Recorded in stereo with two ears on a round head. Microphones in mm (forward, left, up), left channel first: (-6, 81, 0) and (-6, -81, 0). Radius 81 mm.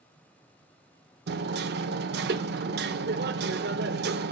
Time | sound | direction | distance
1.3 | hammering | 65° right (ahead or behind) | 0.8 m